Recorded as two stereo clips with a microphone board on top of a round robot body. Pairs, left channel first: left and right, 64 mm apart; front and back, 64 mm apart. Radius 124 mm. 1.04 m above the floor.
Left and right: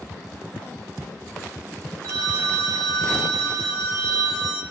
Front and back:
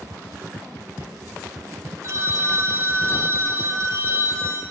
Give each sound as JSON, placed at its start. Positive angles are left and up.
{"t": 2.0, "sound": "a phone ringing", "azimuth_deg": -135, "distance_m": 1.5}